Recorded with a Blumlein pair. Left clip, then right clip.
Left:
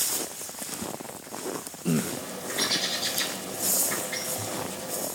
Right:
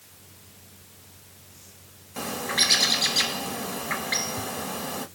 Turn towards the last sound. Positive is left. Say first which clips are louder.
# right 5 dB
turn(degrees=-40)